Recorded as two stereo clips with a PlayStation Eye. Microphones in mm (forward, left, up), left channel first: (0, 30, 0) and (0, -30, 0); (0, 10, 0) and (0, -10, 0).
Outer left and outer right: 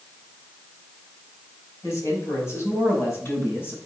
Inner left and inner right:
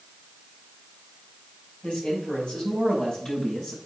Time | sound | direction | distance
1.8 | a man speaking | 55° left (ahead or behind) | 4.5 m